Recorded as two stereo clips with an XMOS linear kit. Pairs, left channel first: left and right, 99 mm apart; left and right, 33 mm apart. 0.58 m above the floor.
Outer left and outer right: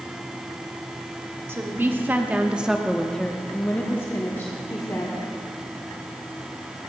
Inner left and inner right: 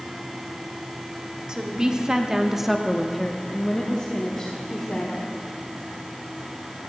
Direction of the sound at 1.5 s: 25° right (ahead or behind).